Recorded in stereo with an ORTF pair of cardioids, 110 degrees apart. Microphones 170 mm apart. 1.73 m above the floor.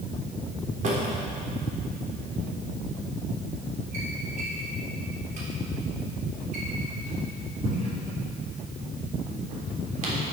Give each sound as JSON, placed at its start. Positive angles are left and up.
{"t": 0.8, "sound": "a drawer", "azimuth_deg": -50, "distance_m": 3.0}